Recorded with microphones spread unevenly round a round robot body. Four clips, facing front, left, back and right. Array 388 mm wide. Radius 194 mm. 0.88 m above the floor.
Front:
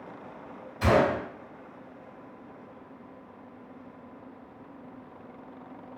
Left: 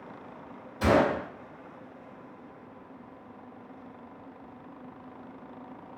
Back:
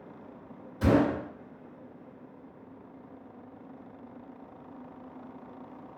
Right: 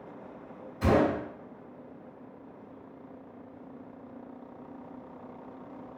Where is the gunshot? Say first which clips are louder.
Left 1 dB, front 1 dB; 150° left, 1.4 m.